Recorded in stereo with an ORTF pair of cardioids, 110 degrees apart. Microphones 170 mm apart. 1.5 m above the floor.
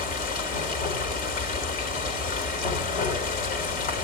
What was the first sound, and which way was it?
Running water, 60° left.